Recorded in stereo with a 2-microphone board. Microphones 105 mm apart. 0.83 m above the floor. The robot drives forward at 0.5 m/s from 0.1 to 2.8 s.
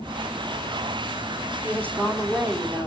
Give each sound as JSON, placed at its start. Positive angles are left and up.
{"t": 1.6, "sound": "a woman speaking", "side_deg": -20, "distance_m": 1.9}